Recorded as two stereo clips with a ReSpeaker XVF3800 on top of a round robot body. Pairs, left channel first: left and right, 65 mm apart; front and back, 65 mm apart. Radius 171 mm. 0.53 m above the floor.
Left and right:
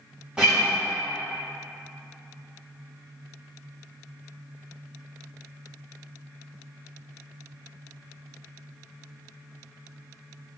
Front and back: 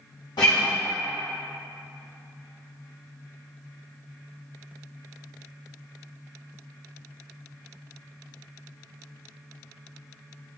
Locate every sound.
0.4 s a guitar: 10° right, 0.5 m